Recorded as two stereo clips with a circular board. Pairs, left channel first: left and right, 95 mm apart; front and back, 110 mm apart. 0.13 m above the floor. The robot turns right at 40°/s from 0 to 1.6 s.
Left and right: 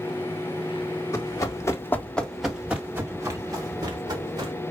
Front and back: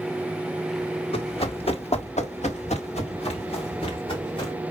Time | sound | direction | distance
1.1 | running footsteps | 30° left | 1.4 m